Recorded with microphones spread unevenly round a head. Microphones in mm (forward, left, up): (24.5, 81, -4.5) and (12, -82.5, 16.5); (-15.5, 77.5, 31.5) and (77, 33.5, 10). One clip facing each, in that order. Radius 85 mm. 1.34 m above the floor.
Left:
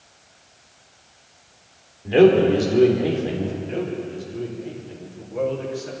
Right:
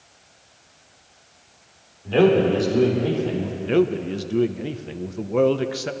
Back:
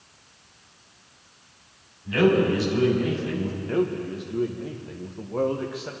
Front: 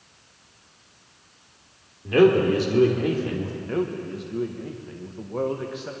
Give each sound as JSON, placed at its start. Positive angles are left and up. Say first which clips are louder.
{"t": 2.0, "sound": "a man speaking", "louder": "left 3 dB, front 3 dB", "azimuth_deg": 10, "distance_m": 3.0}
{"t": 3.6, "sound": "a man speaking", "louder": "right 7 dB, back 3 dB", "azimuth_deg": -120, "distance_m": 0.8}